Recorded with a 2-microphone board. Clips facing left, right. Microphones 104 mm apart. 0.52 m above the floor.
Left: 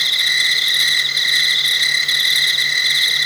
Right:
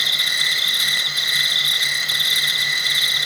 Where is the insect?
45° right (ahead or behind), 2 m.